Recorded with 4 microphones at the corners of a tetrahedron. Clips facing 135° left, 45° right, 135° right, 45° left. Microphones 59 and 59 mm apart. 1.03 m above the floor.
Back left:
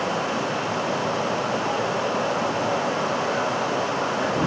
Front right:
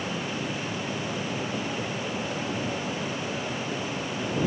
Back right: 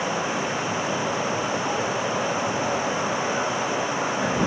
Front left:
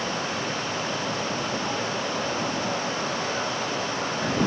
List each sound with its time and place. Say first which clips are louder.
0.0 s running water: back left 7 dB, back right 3 dB; 150° left